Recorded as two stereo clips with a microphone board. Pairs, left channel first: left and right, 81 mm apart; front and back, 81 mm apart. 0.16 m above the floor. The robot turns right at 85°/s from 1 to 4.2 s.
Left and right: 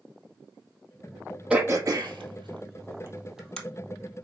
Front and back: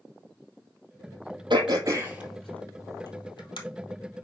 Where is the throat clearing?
170° right, 1.9 m; by 3.6 s 10° left, 1.9 m.